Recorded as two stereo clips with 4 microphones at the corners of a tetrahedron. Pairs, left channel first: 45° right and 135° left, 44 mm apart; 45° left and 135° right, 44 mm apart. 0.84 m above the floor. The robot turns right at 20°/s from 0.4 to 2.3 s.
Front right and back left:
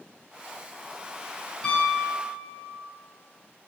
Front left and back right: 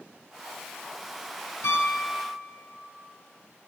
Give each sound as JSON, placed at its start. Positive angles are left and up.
{"t": 1.6, "sound": "a piano", "azimuth_deg": 35, "distance_m": 4.0}